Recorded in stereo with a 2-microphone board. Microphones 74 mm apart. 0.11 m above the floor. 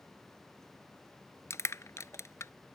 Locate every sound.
1.5 s crushing: 40° left (ahead or behind)